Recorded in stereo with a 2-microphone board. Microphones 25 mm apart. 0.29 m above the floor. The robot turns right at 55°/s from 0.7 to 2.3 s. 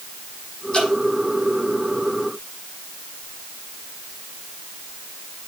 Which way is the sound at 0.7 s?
40° left (ahead or behind).